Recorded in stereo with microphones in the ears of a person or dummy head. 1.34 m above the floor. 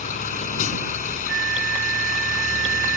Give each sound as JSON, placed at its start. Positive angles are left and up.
{"t": 0.0, "sound": "a vehicle", "side_deg": 45}
{"t": 1.3, "sound": "a flute", "side_deg": -85}